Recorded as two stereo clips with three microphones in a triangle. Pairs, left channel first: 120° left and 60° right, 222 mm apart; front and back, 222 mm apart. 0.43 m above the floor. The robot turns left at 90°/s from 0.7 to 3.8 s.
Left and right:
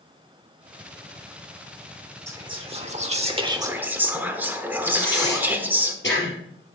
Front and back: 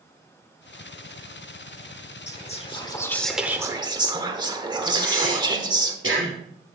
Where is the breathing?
155° left, 3 m.